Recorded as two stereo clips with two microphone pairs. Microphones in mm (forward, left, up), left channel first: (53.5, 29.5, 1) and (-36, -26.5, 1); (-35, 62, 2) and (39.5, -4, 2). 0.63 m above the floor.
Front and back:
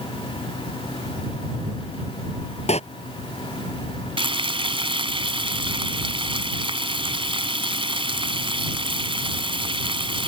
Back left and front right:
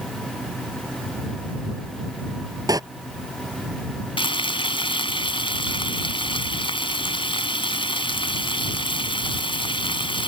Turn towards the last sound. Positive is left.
turn(degrees=175)